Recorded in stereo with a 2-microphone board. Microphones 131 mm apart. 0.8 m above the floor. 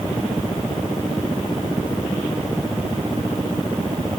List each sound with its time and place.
Only background noise.